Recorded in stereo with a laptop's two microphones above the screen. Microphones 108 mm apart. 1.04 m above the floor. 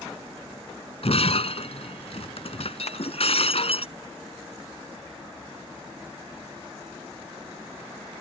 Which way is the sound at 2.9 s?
75° left (ahead or behind).